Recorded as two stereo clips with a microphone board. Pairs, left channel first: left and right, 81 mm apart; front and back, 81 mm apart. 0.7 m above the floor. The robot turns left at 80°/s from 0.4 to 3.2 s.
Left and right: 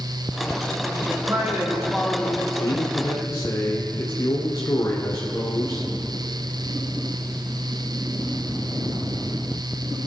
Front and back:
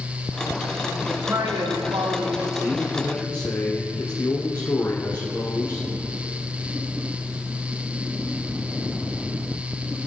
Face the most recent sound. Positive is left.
turn(degrees=45)